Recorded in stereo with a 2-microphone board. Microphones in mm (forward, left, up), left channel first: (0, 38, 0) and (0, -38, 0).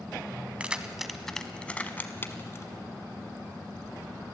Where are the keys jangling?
15° right (ahead or behind), 1.0 m; by 2.7 s 40° left (ahead or behind), 1.3 m.